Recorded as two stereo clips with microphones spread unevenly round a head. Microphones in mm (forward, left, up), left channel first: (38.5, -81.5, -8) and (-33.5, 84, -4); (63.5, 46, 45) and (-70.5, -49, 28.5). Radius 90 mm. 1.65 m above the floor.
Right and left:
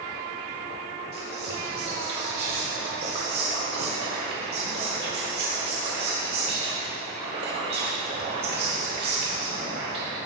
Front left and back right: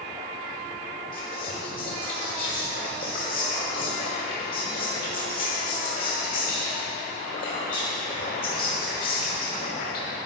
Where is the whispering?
80° left, 1.0 m.